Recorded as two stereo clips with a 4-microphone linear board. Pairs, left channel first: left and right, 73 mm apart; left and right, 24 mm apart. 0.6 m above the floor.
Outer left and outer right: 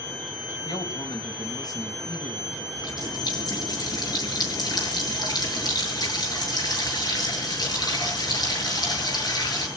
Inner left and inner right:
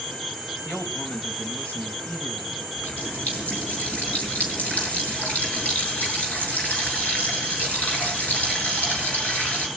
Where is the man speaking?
65° left (ahead or behind), 4 m.